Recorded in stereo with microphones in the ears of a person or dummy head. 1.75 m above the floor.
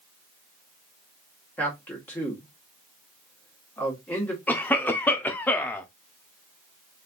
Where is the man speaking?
5° left (ahead or behind), 1.5 m.